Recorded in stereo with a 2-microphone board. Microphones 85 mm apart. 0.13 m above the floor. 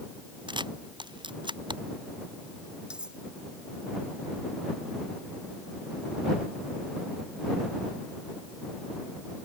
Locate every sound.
0.5 s a camera shutter: 70° right (ahead or behind)
2.9 s cutlery clinking: 10° right (ahead or behind)